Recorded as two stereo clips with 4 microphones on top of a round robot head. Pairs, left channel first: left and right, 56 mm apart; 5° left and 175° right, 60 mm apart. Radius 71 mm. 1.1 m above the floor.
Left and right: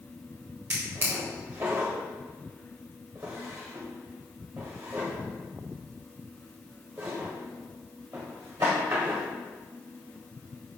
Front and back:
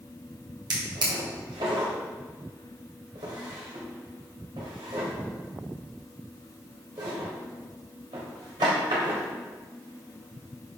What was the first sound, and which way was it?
A drawer, 155° right.